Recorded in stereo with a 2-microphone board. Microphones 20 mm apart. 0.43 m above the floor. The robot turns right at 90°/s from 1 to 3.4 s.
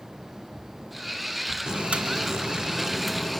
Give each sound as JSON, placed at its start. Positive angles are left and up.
{"t": 1.7, "sound": "boiling", "azimuth_deg": -130, "distance_m": 2.0}